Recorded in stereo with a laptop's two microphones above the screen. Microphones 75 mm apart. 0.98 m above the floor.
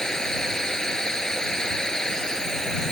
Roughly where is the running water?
Centre.